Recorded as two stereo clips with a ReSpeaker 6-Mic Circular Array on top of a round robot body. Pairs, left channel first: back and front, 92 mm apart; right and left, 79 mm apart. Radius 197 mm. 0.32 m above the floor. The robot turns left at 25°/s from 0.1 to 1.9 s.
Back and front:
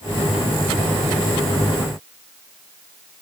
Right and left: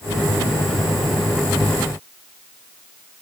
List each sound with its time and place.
Only background noise.